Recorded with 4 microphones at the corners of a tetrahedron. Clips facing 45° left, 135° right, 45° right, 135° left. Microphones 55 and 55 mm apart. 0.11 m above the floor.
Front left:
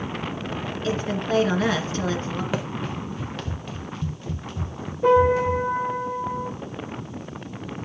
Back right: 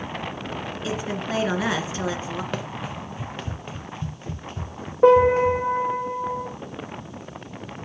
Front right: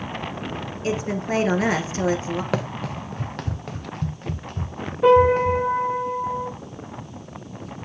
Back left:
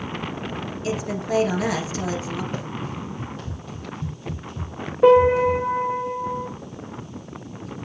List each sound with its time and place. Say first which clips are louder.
0.8 s a woman speaking: front left 3 dB, front right 2 dB; 60° right, 1.8 m
2.5 s running footsteps: front left 2 dB, front right 4 dB; 40° right, 0.6 m; by 5.6 s 85° right, 2.0 m
5.0 s a piano: back right 3 dB, back left 1 dB; 160° right, 4.5 m